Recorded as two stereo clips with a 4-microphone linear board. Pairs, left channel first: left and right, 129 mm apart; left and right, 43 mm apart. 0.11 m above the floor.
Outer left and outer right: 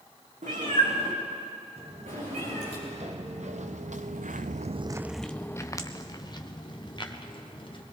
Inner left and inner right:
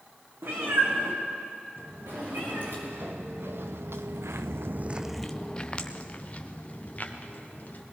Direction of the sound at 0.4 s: 75° right (ahead or behind).